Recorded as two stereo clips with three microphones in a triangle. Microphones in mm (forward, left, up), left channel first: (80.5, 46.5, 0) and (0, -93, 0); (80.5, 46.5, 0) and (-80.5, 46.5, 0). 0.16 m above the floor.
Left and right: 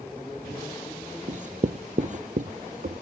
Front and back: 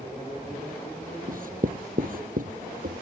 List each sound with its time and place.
1.3 s writing: 155° right